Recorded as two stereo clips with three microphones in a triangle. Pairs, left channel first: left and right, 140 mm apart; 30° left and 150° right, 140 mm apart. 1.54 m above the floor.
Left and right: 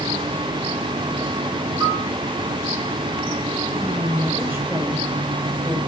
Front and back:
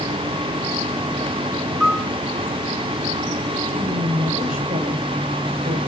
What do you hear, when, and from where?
1.8 s a piano: 95° right, 1.1 m
3.7 s a woman speaking: 165° right, 8 m